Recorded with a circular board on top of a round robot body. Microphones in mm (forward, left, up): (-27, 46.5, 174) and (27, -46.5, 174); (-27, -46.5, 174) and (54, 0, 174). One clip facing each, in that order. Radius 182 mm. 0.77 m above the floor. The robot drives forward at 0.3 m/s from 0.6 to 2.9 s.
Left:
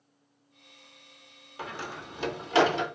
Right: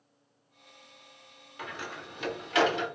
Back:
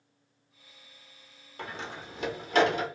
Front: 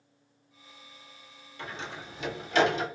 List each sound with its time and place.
1.6 s a door slam: 175° left, 0.9 m; by 2.9 s straight behind, 1.2 m